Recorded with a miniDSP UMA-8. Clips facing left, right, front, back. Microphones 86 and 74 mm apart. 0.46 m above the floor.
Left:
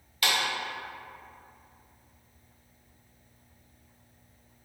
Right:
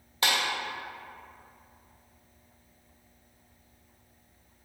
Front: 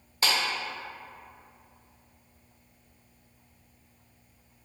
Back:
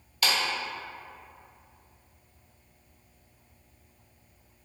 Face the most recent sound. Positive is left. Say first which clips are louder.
# right 1 dB, even
turn(degrees=-45)